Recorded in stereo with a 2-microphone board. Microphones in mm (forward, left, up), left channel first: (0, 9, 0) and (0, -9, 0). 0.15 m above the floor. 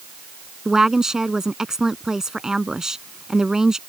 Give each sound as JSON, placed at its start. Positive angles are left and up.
{"t": 0.7, "sound": "a woman speaking", "side_deg": -35}